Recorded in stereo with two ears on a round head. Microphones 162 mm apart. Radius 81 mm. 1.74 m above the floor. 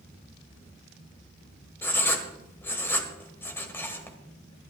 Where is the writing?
10° left (ahead or behind), 1.5 m.